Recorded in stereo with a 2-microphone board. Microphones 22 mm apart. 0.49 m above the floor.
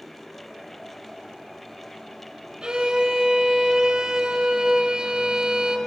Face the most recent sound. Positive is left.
turn(degrees=-40)  # may be behind; listen again after turning